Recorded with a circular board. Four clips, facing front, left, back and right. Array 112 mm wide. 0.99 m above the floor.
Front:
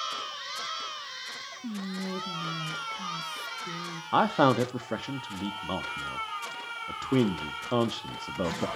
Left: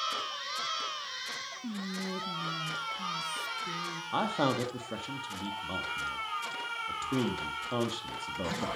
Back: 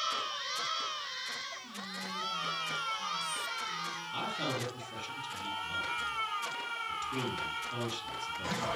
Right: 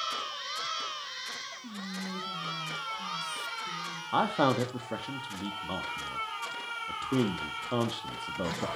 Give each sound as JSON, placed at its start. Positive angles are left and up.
{"t": 1.6, "sound": "whispering", "azimuth_deg": 25, "distance_m": 1.7}
{"t": 4.1, "sound": "a man speaking", "azimuth_deg": -10, "distance_m": 1.7}